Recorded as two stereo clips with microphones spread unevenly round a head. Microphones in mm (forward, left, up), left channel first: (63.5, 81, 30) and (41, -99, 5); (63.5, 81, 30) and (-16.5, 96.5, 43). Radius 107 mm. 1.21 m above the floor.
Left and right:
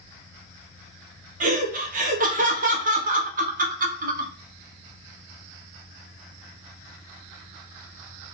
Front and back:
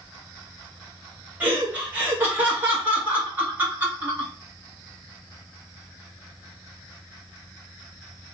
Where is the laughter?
120° right, 0.7 m.